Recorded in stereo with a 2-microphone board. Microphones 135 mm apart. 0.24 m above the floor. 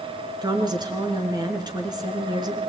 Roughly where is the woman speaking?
Right.